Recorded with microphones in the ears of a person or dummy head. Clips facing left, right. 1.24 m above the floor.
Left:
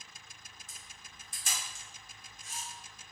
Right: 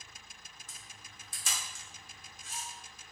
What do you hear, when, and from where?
0.7 s a camera shutter: 60° right (ahead or behind), 0.9 m